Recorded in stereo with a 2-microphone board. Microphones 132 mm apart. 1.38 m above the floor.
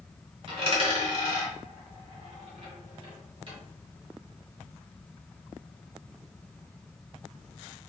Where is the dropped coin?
45° right (ahead or behind), 1.7 m.